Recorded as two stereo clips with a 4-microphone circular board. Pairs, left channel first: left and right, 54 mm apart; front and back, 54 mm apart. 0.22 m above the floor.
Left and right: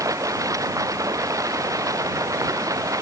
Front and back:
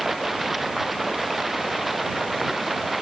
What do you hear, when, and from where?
0.0 s running water: 95° right